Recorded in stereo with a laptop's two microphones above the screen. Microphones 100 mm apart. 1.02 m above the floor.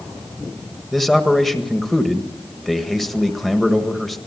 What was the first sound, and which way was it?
A man speaking, 5° left (ahead or behind).